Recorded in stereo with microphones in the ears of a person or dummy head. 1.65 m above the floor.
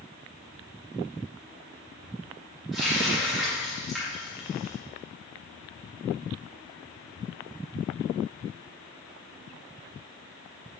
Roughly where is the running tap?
Centre.